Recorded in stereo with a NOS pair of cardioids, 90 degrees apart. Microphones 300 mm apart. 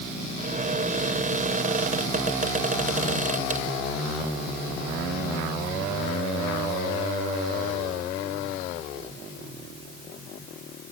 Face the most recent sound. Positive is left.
turn(degrees=-25)